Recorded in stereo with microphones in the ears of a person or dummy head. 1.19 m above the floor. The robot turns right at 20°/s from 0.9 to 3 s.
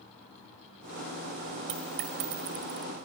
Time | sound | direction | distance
1.7 | a dropped coin | 35° right (ahead or behind) | 1.3 m